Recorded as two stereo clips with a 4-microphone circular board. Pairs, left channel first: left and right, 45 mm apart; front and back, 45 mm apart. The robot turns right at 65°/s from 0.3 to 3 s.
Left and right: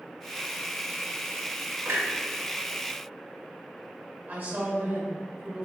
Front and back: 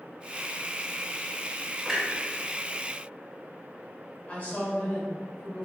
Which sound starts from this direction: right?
A clunk, at 1.9 s.